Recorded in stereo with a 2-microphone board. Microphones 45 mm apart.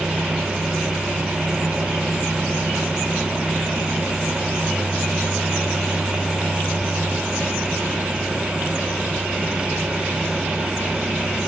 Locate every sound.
Only background noise.